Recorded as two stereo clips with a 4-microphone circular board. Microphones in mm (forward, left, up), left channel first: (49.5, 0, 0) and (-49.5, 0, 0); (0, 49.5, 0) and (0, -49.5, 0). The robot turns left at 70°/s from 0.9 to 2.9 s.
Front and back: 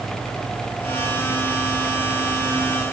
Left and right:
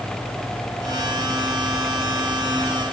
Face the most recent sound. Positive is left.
No sound to turn to.